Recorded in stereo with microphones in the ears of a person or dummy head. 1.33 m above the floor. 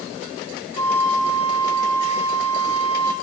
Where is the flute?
35° left (ahead or behind), 6 m.